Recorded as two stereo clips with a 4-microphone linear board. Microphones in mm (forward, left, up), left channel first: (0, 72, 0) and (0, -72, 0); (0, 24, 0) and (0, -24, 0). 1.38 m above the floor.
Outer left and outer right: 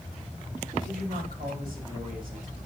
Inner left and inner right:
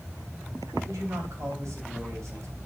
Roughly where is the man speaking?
Right.